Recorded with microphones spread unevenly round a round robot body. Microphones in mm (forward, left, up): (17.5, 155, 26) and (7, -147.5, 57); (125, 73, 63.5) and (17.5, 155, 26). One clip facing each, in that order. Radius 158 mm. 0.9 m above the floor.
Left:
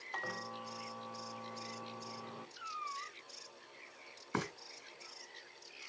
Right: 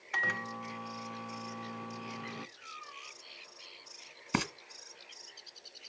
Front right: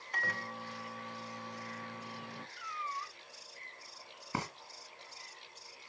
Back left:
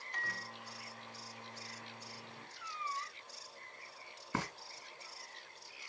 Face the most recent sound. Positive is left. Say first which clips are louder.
# right 5 dB, even
turn(degrees=-125)